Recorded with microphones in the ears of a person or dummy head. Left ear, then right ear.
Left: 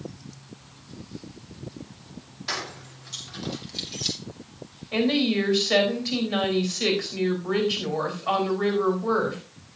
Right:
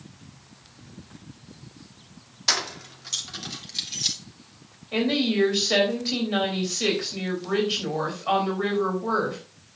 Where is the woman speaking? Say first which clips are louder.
Left 1 dB; centre (ahead or behind), 4 m.